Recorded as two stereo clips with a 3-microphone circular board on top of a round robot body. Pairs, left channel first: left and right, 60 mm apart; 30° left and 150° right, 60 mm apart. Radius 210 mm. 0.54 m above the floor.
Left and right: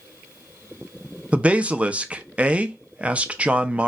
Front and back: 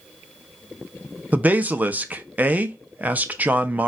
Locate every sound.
1.3 s a man speaking: 130° right, 0.8 m